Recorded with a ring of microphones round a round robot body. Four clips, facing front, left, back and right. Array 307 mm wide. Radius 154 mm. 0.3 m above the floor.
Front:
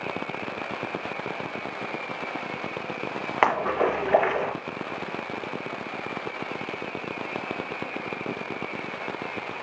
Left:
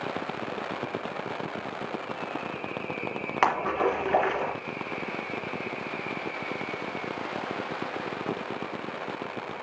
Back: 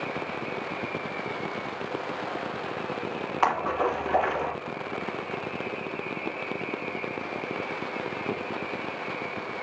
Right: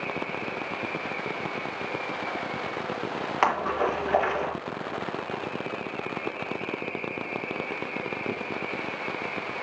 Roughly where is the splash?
Ahead.